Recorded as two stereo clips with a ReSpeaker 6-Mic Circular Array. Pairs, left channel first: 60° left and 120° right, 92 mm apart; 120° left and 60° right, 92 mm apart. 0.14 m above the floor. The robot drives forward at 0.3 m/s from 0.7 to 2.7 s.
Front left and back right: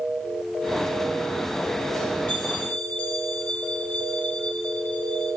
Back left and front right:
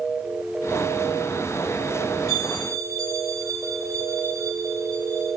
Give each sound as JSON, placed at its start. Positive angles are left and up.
{"t": 2.3, "sound": "a bell", "azimuth_deg": -10, "distance_m": 4.0}